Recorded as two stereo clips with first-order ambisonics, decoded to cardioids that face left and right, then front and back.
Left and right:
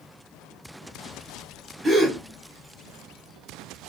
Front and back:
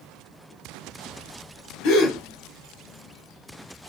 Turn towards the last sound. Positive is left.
turn(degrees=5)